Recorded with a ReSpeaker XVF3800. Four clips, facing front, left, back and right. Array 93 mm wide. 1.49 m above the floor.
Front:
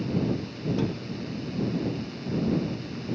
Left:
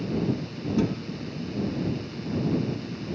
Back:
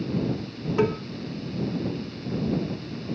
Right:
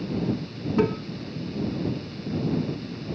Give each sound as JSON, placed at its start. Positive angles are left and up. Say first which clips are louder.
{"t": 0.8, "sound": "a cowbell", "louder": "right 4 dB, back 9 dB", "azimuth_deg": -145}